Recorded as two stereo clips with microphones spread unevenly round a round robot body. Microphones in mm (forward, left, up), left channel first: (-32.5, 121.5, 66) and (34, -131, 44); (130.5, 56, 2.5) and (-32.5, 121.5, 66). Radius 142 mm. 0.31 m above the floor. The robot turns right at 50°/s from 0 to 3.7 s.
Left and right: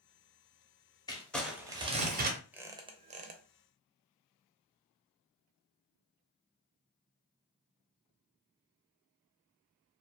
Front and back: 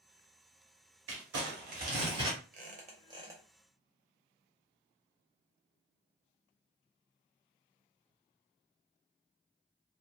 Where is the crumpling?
Straight behind, 0.7 m; by 2.4 s 115° right, 0.7 m.